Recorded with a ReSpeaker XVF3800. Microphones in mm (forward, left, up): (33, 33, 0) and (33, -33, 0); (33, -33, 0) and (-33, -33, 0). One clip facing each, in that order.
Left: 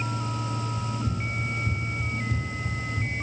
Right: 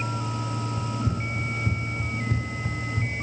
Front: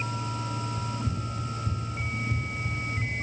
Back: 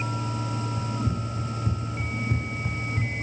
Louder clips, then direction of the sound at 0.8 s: Right 2 dB, back 3 dB; 115° right.